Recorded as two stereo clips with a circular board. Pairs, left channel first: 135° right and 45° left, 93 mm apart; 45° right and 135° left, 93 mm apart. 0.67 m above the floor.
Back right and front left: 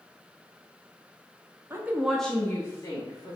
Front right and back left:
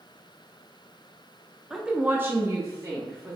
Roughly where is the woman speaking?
Ahead left.